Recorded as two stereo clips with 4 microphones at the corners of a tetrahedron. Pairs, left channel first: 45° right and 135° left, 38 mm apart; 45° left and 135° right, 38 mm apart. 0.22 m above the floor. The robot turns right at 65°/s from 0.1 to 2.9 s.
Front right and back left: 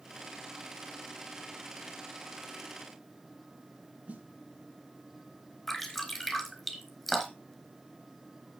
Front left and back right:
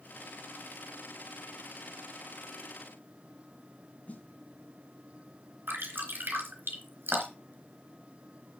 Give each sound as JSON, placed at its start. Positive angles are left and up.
{"t": 4.1, "sound": "a snare drum", "azimuth_deg": 90, "distance_m": 1.8}
{"t": 5.7, "sound": "dripping", "azimuth_deg": -130, "distance_m": 3.5}